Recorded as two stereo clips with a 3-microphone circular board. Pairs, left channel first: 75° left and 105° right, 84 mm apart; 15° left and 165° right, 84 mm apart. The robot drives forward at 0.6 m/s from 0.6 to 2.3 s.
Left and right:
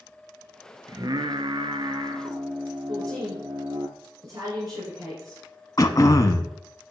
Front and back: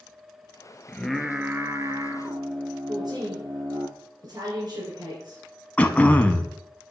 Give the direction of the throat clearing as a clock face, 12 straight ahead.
9 o'clock.